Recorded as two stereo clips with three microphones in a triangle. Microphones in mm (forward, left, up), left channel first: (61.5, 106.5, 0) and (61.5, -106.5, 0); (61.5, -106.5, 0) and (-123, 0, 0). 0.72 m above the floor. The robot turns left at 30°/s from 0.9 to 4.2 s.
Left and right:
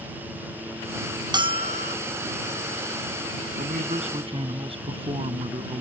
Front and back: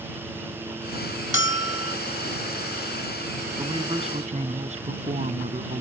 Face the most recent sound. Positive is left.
turn(degrees=-155)